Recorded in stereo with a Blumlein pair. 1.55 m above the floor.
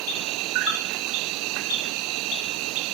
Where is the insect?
40° right.